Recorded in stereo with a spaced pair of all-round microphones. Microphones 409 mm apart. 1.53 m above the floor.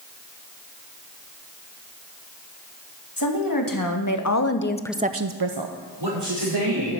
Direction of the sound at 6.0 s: 85° right.